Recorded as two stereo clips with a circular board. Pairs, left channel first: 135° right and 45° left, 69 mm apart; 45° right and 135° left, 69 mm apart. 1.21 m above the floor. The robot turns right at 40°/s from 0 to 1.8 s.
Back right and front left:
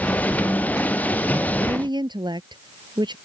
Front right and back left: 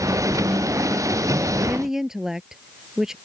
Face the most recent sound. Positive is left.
turn(degrees=50)